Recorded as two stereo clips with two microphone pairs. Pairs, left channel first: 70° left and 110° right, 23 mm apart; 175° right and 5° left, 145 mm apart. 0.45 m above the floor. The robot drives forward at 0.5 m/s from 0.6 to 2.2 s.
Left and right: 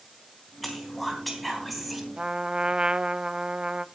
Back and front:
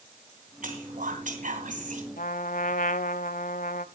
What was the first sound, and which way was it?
Whispering, 15° right.